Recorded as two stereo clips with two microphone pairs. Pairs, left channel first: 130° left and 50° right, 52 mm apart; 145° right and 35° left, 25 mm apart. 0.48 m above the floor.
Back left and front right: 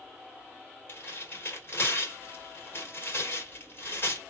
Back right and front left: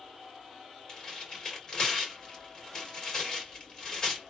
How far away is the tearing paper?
About 2 m.